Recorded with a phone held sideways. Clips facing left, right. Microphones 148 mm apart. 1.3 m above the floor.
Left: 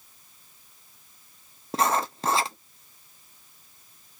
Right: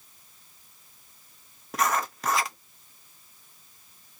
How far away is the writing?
About 0.8 m.